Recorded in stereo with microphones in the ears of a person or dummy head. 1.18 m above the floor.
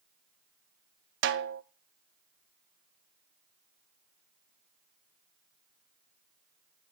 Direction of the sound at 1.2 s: 55° right (ahead or behind).